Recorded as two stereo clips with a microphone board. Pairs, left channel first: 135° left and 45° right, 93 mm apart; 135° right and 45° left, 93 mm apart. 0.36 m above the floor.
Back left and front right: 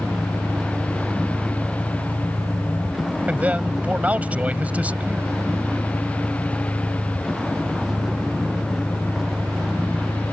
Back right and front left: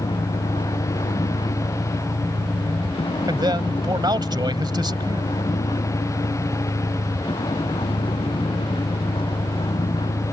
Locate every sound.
0.0 s a vehicle: 130° right
3.3 s a man speaking: 25° left